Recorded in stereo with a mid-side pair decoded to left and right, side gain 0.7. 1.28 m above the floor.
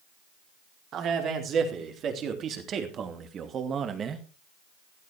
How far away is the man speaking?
About 4 m.